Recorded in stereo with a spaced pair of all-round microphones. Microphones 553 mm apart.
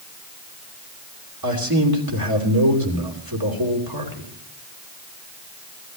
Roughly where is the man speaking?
Right.